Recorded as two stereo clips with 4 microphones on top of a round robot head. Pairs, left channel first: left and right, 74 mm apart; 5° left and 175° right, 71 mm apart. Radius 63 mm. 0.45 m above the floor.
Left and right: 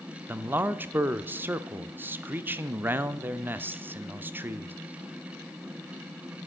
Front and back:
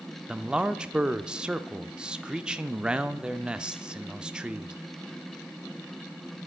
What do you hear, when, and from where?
0.3 s a man speaking: 110° right, 0.8 m